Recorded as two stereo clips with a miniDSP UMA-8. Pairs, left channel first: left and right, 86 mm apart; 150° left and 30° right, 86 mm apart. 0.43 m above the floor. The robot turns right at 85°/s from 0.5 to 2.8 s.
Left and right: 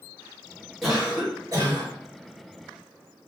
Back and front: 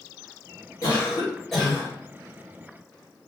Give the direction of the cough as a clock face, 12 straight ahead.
6 o'clock.